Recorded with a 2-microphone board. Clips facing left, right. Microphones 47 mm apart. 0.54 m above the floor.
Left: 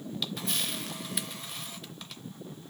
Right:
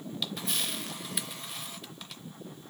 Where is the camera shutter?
Centre (ahead or behind), 0.6 m.